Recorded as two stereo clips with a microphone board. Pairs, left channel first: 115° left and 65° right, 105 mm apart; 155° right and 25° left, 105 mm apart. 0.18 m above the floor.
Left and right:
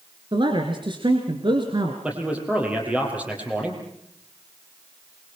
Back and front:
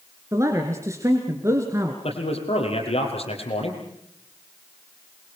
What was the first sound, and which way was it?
A man speaking, 35° right.